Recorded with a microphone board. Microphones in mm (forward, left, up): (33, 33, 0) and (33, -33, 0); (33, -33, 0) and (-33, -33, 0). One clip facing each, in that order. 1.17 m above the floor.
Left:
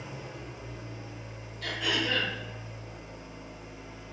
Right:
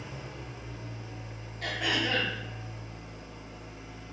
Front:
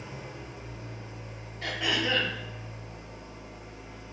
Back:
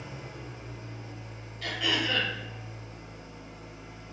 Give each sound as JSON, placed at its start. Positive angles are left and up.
{"t": 0.0, "sound": "an engine running", "azimuth_deg": 20, "distance_m": 1.2}
{"t": 1.6, "sound": "throat clearing", "azimuth_deg": -55, "distance_m": 1.8}